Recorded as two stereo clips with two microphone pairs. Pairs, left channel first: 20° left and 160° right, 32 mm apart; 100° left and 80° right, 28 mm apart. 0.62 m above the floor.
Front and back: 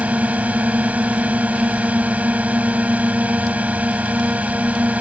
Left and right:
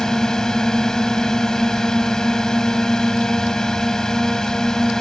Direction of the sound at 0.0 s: 165° left.